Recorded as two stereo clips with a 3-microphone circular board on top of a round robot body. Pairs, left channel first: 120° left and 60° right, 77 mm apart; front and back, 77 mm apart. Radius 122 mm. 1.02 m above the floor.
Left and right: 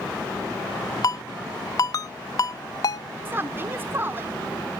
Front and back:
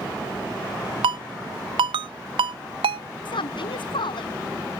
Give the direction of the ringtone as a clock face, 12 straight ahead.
6 o'clock.